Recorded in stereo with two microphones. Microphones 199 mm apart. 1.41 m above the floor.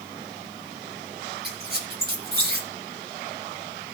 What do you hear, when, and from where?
1.4 s a squeak: 55° right (ahead or behind), 2.5 m